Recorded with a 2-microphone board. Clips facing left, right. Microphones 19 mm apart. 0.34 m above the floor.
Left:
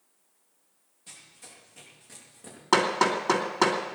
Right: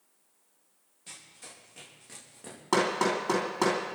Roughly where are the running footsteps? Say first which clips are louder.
Right 1 dB; centre.